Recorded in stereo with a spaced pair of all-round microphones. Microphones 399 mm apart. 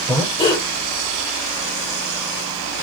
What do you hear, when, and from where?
0.1 s breathing: 10° left (ahead or behind), 6 m